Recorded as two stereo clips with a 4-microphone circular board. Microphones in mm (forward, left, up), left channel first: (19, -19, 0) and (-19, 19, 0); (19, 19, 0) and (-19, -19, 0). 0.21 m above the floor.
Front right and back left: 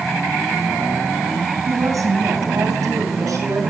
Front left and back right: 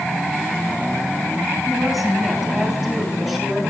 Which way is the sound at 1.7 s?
140° left.